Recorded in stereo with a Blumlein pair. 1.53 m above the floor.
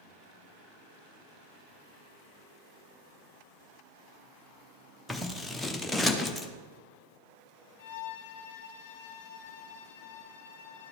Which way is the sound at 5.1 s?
5° left.